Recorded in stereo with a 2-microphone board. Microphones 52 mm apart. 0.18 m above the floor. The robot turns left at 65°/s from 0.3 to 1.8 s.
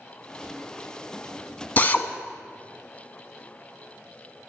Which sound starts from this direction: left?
A drill, at 1.8 s.